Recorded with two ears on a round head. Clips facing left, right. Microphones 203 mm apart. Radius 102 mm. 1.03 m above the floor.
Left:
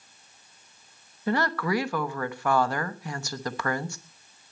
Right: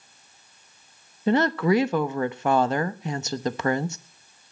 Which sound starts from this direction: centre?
A woman speaking, at 1.3 s.